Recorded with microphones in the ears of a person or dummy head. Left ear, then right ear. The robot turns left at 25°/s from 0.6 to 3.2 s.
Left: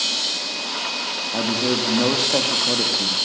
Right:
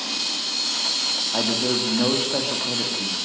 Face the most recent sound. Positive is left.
turn(degrees=150)